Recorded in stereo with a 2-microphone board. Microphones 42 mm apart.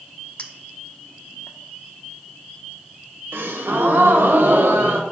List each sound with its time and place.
0.4 s a clink: 30° left (ahead or behind), 0.7 m
3.3 s a gasp: 70° right (ahead or behind), 0.8 m